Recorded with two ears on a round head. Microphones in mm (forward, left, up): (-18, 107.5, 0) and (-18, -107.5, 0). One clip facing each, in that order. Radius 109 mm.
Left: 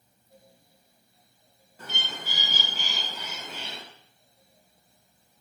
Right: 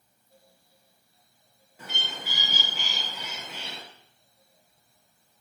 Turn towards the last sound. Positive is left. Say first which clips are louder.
# even
turn(degrees=-5)  # may be behind; listen again after turning